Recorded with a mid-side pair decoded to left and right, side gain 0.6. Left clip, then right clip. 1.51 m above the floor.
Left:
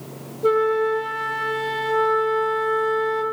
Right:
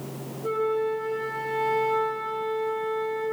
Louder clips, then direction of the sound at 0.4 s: Left 7 dB; 65° left.